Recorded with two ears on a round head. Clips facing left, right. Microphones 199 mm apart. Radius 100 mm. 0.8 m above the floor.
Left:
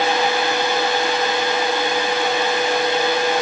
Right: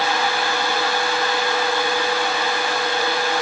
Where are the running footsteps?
No running footsteps in this recording.